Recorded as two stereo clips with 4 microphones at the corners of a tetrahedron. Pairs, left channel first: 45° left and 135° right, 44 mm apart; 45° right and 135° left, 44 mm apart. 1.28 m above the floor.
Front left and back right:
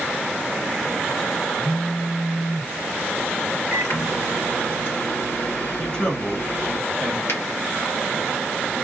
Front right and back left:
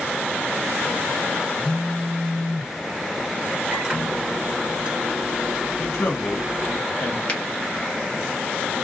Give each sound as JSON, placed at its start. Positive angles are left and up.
{"t": 1.6, "sound": "a phone buzzing", "azimuth_deg": 45, "distance_m": 1.6}
{"t": 3.7, "sound": "a microwave", "azimuth_deg": 65, "distance_m": 2.0}
{"t": 5.8, "sound": "a man speaking", "azimuth_deg": -25, "distance_m": 1.0}
{"t": 7.3, "sound": "a finger snap", "azimuth_deg": 15, "distance_m": 0.9}